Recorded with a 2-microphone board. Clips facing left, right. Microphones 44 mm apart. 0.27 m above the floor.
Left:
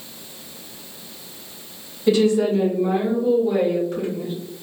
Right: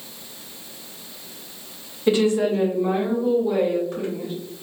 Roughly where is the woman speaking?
Right.